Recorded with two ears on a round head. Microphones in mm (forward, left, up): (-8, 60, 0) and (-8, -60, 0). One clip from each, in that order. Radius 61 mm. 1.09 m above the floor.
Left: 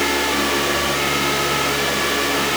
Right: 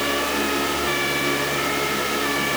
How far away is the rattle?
I don't hear a rattle.